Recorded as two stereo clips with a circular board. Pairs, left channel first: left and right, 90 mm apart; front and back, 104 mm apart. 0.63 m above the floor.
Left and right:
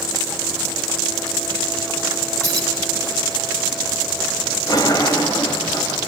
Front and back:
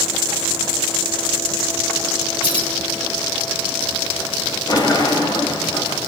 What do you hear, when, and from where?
2.4 s keys jangling: 35° right, 3 m
4.7 s a sliding door: 45° left, 2.5 m